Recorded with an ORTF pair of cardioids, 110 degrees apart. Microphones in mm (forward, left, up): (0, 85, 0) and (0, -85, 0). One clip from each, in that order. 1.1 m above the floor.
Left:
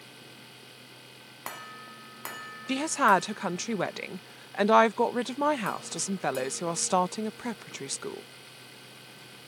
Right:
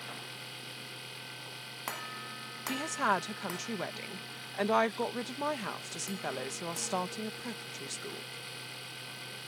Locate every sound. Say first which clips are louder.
0.0 s a machine running: right 6 dB; 35° right
2.7 s a woman speaking: left 8 dB; 40° left